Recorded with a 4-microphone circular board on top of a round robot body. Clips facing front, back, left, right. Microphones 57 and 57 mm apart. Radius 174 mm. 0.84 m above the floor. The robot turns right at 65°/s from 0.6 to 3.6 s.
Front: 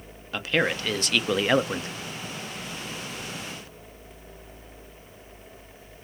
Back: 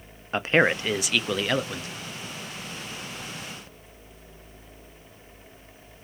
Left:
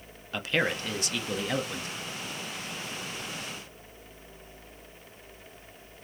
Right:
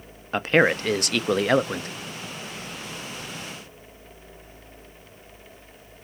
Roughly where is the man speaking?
Behind right.